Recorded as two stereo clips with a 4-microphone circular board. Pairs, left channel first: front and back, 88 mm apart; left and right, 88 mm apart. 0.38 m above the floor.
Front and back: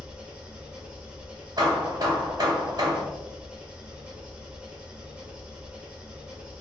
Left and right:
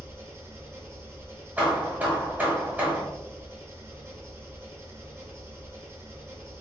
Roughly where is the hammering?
Behind right.